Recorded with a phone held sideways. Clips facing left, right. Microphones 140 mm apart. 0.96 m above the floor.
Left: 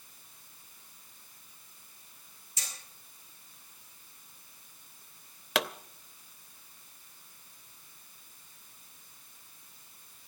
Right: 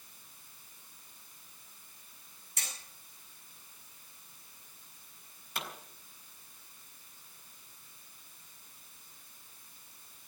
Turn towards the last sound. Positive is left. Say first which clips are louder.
# left 11 dB
turn(degrees=85)